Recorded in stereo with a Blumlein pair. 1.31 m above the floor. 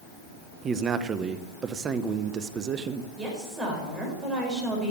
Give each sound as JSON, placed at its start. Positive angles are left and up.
{"t": 0.6, "sound": "a man speaking", "azimuth_deg": -25, "distance_m": 0.8}
{"t": 3.2, "sound": "a woman speaking", "azimuth_deg": -15, "distance_m": 4.5}